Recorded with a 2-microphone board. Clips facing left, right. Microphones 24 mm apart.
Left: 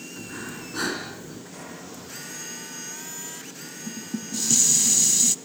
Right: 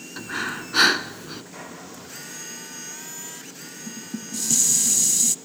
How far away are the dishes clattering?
About 0.7 m.